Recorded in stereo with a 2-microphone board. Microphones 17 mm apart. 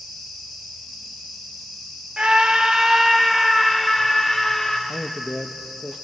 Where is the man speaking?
50° left (ahead or behind), 0.8 m.